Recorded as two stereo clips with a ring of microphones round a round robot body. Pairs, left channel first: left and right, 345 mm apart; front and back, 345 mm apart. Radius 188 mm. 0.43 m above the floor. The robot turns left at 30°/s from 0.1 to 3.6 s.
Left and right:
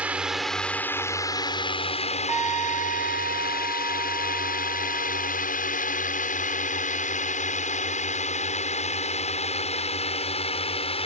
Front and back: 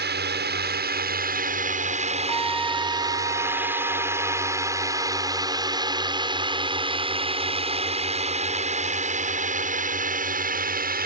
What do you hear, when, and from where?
0.0 s a drone: 170° right; by 11.1 s 150° left
2.3 s a trumpet: 130° right; by 5.4 s 170° right